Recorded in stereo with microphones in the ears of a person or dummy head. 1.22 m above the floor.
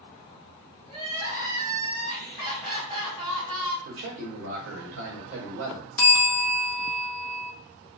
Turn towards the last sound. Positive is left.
turn(degrees=5)  # may be behind; listen again after turning